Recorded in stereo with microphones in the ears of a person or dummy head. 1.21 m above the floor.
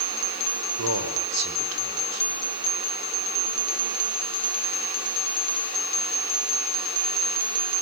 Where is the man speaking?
90° right, 4.5 m.